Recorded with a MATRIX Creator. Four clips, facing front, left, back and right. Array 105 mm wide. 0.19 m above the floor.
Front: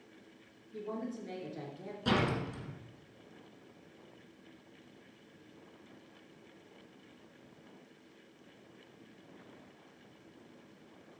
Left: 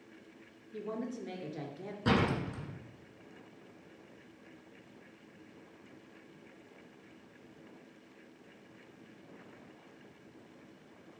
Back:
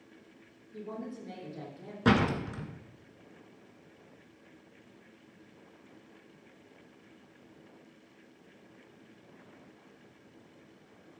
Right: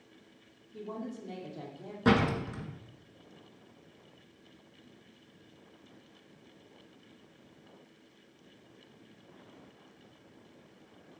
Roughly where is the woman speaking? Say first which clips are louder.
Left 1 dB, front 1 dB; left.